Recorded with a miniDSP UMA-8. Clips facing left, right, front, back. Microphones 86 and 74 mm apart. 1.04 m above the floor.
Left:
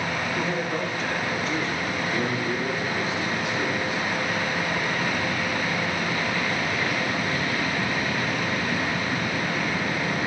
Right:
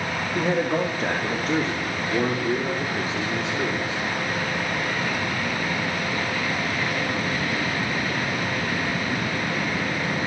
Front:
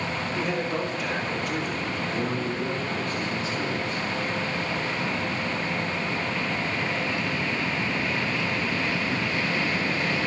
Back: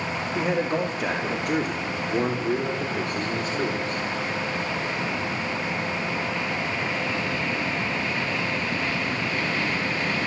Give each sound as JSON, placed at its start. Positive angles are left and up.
{"t": 0.3, "sound": "a man speaking", "azimuth_deg": -125, "distance_m": 1.9}